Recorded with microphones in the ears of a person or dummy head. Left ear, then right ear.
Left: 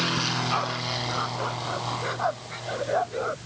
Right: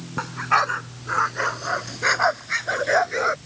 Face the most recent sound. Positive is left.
turn(degrees=-55)  # may be behind; listen again after turning